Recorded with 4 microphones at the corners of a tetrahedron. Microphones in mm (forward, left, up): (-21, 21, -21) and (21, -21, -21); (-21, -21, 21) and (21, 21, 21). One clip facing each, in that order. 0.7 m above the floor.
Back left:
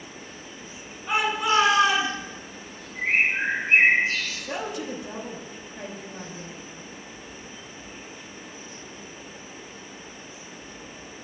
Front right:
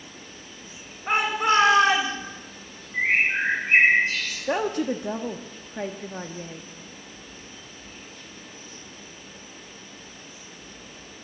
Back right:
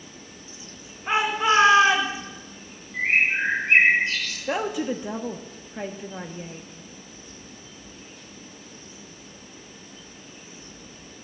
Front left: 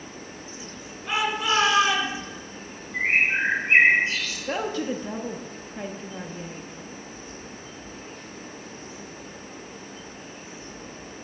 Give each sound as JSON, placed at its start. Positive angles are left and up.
{"t": 1.1, "sound": "a shout", "azimuth_deg": -80, "distance_m": 3.0}
{"t": 2.9, "sound": "a bird", "azimuth_deg": -20, "distance_m": 6.0}
{"t": 4.5, "sound": "a woman speaking", "azimuth_deg": -65, "distance_m": 0.7}